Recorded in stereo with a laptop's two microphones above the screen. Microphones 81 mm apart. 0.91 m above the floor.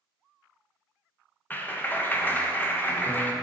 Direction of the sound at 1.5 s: 20° left (ahead or behind).